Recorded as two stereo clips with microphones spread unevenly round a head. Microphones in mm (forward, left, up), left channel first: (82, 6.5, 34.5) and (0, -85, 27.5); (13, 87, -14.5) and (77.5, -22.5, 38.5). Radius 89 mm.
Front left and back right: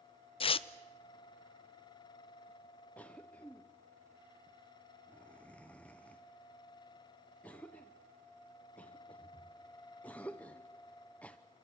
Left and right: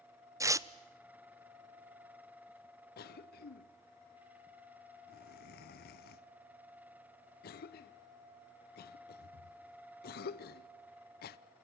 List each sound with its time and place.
0.4 s tearing paper: 5° left, 0.6 m
3.0 s a cough: 130° left, 0.8 m